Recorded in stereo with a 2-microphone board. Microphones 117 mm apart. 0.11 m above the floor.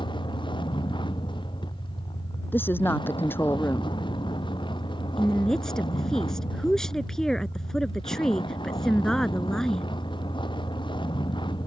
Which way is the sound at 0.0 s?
40° left (ahead or behind).